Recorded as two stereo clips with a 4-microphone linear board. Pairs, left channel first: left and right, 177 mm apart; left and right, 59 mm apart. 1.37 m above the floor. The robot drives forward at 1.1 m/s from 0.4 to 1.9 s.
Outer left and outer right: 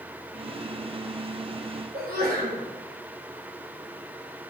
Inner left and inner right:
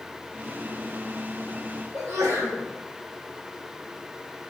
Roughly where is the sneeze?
Right.